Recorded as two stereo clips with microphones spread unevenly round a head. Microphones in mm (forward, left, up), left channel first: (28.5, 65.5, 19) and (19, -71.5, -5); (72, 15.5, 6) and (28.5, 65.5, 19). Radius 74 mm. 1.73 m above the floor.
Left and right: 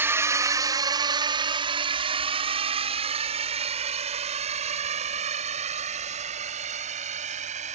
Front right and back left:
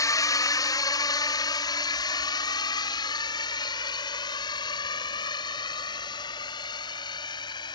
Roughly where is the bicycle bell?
No bicycle bell in this recording.